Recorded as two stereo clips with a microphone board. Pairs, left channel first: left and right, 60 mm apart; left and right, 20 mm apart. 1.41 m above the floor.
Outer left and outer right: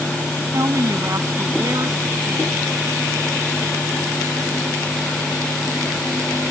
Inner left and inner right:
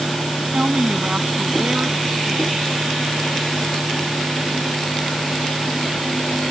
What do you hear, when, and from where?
0.5 s a woman speaking: 50° right (ahead or behind)